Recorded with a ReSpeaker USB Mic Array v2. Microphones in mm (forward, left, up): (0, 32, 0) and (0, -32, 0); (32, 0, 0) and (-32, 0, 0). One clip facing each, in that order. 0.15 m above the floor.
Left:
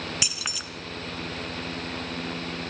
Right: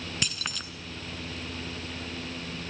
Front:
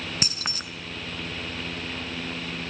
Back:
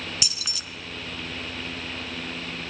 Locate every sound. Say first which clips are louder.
0.2 s keys jangling: even, front 4 dB; 10° left, 0.9 m